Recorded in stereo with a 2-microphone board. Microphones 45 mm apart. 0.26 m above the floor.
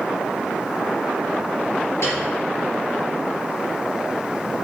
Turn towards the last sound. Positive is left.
turn(degrees=70)  # may be behind; listen again after turning